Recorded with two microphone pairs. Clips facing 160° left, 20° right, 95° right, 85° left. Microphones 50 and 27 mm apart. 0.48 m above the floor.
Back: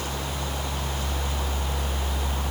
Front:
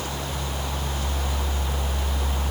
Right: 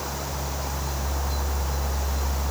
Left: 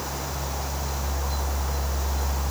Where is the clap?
No clap in this recording.